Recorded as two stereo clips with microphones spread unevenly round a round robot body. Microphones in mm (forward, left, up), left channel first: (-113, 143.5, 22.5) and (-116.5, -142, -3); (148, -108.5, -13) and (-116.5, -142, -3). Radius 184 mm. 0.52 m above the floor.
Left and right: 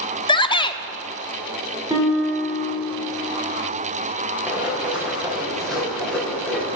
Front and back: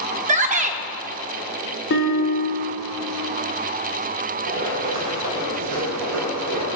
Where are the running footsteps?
175° right, 5.5 m; by 6.8 s 175° left, 6 m.